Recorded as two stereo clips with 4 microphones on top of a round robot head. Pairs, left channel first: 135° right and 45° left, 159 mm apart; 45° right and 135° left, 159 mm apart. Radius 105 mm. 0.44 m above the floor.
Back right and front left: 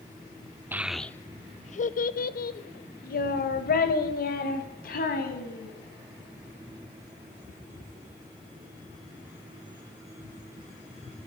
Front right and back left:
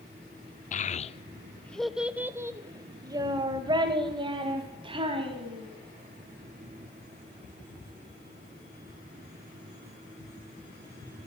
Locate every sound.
0.7 s a child speaking: 30° right, 0.6 m; by 5.7 s 165° right, 2.5 m